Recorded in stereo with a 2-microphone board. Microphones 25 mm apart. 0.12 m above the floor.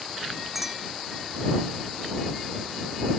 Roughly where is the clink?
Centre.